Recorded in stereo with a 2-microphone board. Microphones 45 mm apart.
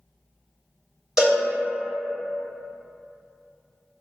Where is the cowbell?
5° right (ahead or behind), 1.4 m.